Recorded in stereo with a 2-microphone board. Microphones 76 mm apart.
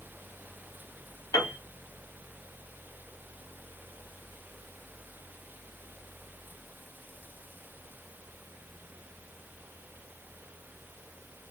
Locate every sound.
1.3 s a piano: 55° left (ahead or behind), 0.8 m